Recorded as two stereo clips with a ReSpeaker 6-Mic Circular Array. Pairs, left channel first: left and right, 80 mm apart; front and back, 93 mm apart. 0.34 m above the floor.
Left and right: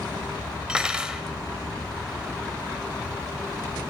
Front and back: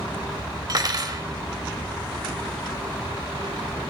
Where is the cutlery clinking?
165° right, 0.9 m.